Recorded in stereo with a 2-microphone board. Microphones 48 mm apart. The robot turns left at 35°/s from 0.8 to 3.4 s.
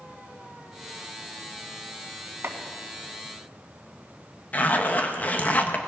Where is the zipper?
35° left (ahead or behind), 1.1 m.